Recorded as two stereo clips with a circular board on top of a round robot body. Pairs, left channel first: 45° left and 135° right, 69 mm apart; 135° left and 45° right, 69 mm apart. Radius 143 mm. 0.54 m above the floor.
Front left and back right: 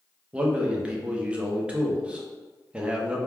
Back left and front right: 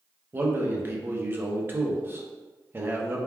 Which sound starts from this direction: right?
A man speaking, at 0.3 s.